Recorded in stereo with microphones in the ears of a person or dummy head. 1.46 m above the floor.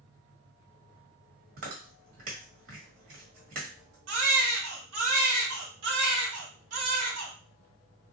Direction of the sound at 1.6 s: 40° right (ahead or behind).